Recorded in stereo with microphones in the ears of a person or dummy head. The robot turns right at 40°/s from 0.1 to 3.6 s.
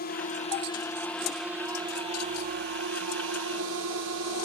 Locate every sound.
0.0 s a drone: 135° left; by 4.5 s 85° right